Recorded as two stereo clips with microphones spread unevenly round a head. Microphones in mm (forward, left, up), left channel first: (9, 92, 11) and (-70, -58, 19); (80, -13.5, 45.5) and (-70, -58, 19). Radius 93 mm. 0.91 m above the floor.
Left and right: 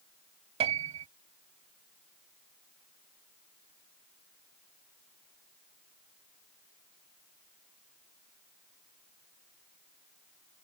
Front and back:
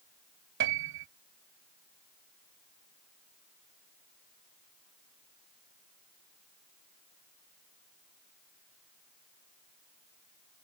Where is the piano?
165° right.